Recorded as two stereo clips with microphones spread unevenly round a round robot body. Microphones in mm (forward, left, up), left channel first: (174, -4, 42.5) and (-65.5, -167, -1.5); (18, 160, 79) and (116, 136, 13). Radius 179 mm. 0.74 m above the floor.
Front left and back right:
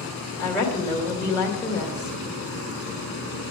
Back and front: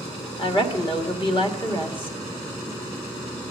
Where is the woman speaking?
120° left, 2.5 m.